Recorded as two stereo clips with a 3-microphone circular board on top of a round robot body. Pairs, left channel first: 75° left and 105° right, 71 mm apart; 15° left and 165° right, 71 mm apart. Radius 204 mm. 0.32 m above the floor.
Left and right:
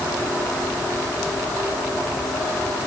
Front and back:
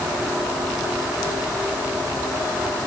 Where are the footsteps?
I don't hear footsteps.